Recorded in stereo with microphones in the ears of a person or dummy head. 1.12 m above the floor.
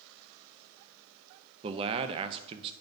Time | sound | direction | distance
1.6 | a man speaking | 30° right (ahead or behind) | 0.5 m